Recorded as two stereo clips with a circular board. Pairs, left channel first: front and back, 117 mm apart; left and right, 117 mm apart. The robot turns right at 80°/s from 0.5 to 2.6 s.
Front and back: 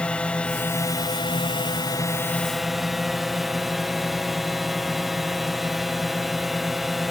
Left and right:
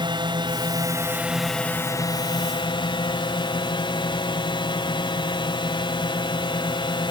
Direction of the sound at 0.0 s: 75° right.